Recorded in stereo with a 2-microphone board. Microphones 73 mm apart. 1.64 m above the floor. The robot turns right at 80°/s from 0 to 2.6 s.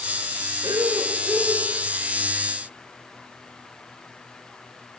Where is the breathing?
85° right, 4.5 m; by 1.7 s 5° right, 4.5 m.